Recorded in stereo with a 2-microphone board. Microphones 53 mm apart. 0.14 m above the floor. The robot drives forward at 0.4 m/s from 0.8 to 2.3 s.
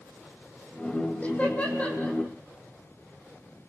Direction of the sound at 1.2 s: 25° left (ahead or behind).